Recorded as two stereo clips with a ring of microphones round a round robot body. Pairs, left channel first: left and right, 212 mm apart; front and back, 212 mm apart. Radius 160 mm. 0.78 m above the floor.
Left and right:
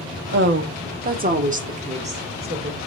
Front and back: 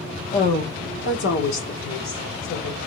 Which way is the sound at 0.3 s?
60° right.